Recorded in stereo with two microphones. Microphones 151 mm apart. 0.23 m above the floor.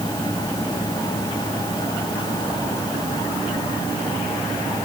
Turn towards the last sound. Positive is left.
No sound to turn to.